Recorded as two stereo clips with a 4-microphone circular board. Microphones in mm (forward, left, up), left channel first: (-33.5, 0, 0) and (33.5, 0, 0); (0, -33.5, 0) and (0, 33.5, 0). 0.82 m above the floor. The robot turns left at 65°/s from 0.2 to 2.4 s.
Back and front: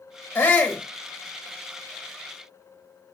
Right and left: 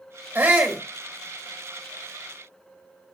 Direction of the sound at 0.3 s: 135° left.